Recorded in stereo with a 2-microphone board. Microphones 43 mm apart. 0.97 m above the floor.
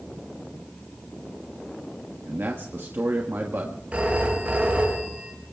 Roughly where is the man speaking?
Right.